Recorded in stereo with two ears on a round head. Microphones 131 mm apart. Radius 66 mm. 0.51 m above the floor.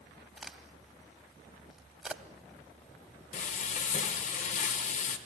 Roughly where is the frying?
Left.